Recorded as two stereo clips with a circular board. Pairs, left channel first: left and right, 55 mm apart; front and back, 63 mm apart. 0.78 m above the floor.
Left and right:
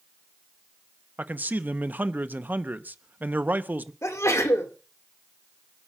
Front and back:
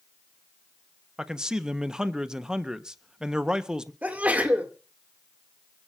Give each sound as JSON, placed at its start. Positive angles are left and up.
{"t": 1.2, "sound": "a man speaking", "azimuth_deg": -110, "distance_m": 0.8}
{"t": 4.0, "sound": "a sneeze", "azimuth_deg": 115, "distance_m": 2.0}